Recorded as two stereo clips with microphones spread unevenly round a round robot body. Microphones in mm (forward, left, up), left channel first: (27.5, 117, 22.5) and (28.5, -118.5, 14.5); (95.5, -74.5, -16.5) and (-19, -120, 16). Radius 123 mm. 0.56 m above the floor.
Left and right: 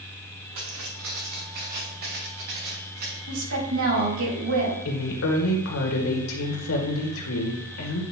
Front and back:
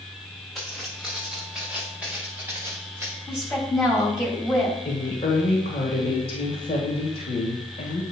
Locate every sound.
0.6 s footsteps: 70° right, 3.5 m; by 3.2 s 90° right, 4.5 m
3.3 s a woman speaking: 70° right, 3.5 m
4.8 s a woman speaking: 70° left, 1.9 m